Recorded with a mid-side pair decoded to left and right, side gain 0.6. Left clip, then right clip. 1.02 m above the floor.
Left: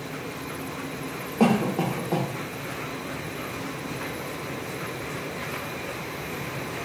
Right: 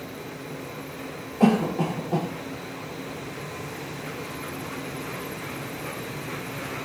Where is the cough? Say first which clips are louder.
Even; 45° left, 1.1 m.